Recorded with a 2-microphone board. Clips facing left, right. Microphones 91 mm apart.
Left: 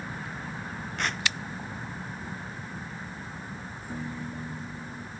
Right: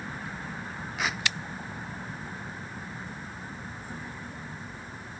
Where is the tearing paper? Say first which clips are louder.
Even; 5° right (ahead or behind).